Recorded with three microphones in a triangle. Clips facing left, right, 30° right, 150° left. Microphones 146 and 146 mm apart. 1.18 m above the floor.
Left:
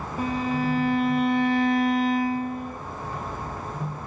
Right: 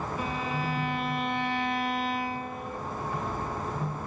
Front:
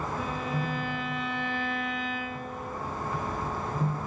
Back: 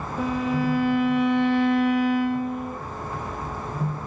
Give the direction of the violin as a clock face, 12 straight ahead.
7 o'clock.